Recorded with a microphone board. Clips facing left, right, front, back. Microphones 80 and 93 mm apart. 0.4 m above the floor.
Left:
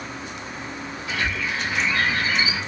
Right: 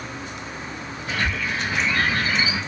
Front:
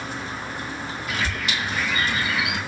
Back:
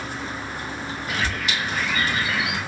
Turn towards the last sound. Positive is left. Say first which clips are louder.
# right 1 dB, back 1 dB
turn(degrees=-130)